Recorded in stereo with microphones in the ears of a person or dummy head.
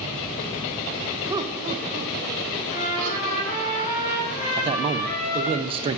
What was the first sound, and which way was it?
Laughter, 10° right (ahead or behind).